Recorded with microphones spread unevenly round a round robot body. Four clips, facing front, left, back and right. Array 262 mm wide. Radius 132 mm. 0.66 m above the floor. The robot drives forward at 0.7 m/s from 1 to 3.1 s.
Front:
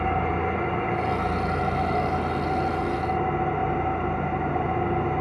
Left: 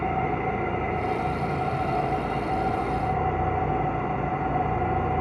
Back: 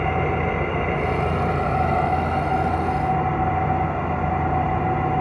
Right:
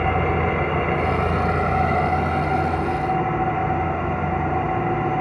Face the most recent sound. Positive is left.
turn(degrees=-150)